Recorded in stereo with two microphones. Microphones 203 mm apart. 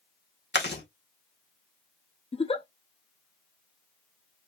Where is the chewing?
60° left (ahead or behind), 2 m.